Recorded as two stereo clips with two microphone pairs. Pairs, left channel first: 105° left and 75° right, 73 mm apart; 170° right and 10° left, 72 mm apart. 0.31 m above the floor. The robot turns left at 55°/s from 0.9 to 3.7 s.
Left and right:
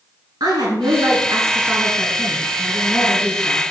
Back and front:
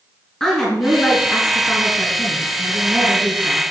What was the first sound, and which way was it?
A woman speaking, 90° right.